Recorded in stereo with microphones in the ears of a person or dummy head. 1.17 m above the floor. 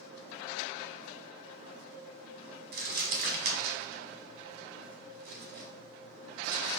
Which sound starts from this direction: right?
Crumpling, at 2.7 s.